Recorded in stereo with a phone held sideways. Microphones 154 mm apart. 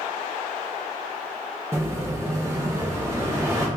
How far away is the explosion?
About 1.0 m.